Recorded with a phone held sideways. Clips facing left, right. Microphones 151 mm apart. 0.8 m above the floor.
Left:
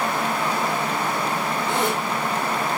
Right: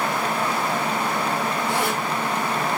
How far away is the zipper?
About 3 m.